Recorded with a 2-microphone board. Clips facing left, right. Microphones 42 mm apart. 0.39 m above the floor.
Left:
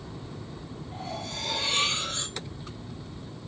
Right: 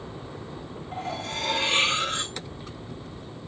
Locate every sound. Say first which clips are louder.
0.9 s cutlery clinking: right 5 dB; 70° right (ahead or behind), 3 m